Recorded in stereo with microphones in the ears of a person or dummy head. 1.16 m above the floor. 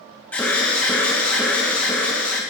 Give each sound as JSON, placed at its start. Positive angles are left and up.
{"t": 0.3, "sound": "an alarm", "side_deg": 5, "distance_m": 1.8}